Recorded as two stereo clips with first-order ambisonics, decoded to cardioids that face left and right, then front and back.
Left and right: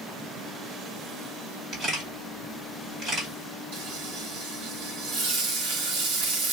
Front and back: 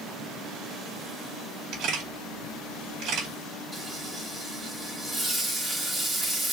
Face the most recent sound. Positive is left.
turn(degrees=-105)